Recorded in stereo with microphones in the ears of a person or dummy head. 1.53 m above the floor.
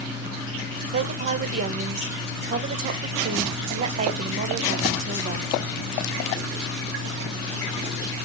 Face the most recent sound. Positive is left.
turn(degrees=-45)  # may be behind; listen again after turning